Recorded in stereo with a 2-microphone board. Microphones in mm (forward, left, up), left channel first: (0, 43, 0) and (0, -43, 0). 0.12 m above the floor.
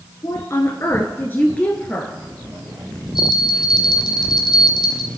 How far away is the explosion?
I don't hear an explosion.